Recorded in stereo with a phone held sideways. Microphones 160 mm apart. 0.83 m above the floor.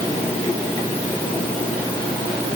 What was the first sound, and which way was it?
Only background noise.